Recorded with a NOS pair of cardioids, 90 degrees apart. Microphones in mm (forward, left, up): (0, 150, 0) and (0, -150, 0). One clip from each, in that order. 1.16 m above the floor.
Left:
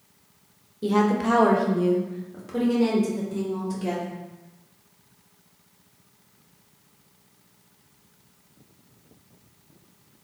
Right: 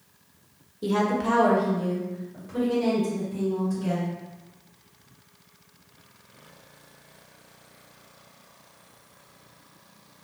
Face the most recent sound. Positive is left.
turn(degrees=70)